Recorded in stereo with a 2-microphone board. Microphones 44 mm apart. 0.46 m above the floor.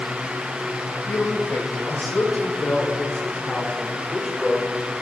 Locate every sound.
1.1 s a man speaking: 60° left (ahead or behind), 2.5 m; by 4.7 s centre (ahead or behind), 1.7 m